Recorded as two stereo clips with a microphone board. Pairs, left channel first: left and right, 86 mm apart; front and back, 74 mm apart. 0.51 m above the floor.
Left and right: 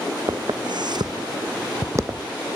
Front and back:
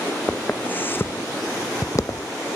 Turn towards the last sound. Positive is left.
turn(degrees=-30)